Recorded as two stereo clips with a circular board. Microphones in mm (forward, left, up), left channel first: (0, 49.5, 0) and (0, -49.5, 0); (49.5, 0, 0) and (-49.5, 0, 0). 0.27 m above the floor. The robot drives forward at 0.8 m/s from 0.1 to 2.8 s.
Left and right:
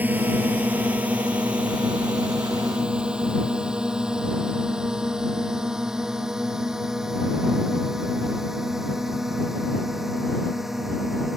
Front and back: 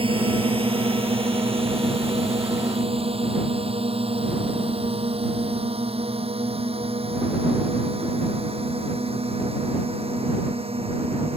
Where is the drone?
160° right; by 11.4 s 175° right.